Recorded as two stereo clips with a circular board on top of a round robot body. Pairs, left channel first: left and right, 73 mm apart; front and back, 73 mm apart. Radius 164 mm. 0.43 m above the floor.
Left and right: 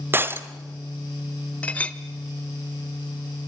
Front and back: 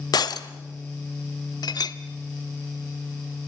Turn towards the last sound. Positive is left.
turn(degrees=20)